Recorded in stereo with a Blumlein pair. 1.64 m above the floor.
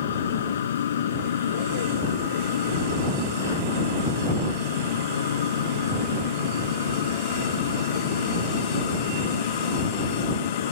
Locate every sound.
0.0 s a machine running: 60° left